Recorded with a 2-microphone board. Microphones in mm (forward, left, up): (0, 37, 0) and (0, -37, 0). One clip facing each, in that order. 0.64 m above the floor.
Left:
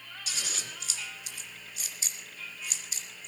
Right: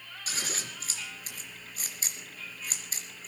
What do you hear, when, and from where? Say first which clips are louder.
0.3 s scissors: right 3 dB; 40° right (ahead or behind), 3 m